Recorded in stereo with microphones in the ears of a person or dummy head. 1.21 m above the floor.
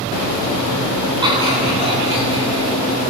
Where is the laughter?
15° right (ahead or behind), 10 m; by 2.7 s 20° right (ahead or behind), 10 m.